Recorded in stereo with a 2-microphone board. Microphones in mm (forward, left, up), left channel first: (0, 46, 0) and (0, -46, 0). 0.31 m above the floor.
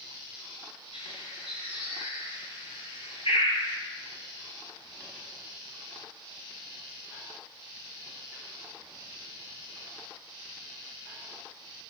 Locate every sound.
0.9 s a bird: 75° left (ahead or behind), 8 m